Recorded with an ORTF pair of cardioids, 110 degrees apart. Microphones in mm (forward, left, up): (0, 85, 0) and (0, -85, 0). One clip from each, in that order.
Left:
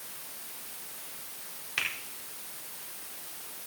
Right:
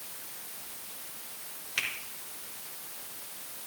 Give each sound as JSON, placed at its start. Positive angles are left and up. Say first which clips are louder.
{"t": 1.8, "sound": "a finger snap", "louder": "left 1 dB", "azimuth_deg": -15, "distance_m": 4.0}